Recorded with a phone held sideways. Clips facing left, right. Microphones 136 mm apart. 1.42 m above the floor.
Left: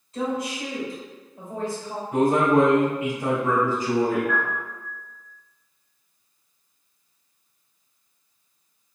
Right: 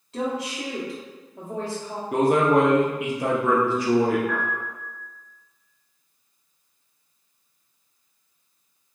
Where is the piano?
75° right (ahead or behind), 1.6 m.